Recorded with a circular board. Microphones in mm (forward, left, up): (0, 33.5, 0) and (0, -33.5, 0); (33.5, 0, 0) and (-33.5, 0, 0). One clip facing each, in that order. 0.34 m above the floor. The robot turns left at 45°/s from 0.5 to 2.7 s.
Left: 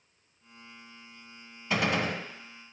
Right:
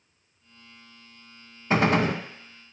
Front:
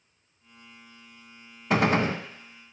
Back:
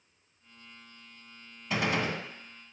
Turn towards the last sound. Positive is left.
turn(degrees=-85)